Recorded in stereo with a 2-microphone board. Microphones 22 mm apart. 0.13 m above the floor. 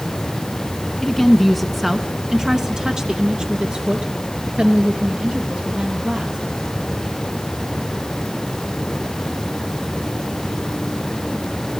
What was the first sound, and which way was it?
A woman speaking, 10° left (ahead or behind).